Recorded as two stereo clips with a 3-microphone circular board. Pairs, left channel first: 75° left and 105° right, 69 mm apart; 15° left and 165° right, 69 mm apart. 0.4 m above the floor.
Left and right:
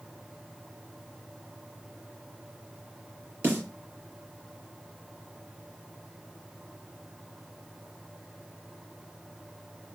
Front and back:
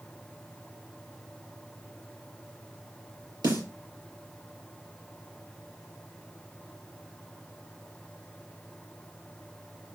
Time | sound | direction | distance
3.4 | a snare drum | 165° right | 5 m